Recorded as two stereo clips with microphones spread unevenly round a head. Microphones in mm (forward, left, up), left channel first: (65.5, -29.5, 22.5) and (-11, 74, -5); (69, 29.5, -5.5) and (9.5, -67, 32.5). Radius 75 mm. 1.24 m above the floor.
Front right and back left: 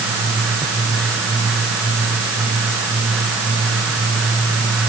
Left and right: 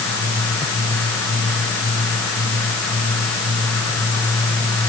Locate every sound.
Only background noise.